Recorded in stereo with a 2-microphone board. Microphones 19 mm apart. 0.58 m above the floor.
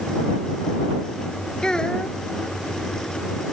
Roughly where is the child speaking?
Left.